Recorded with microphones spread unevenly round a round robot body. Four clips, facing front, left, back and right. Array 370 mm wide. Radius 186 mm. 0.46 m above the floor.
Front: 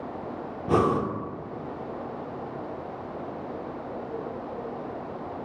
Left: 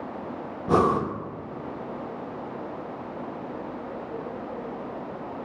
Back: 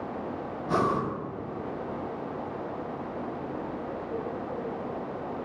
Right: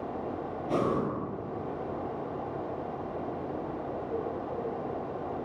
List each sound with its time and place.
0.7 s breathing: 55° left, 0.8 m